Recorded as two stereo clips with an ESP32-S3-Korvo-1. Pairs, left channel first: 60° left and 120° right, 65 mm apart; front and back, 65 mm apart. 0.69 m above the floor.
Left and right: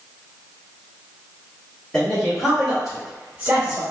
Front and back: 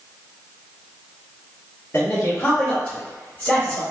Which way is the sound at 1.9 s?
15° right.